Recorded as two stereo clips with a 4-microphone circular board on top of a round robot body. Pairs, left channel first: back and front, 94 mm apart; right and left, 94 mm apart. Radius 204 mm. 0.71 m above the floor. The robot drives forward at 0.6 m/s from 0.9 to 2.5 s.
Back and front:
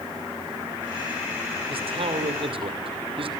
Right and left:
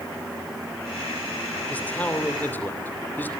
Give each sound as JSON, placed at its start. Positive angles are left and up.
{"t": 1.7, "sound": "a man speaking", "azimuth_deg": -15, "distance_m": 3.0}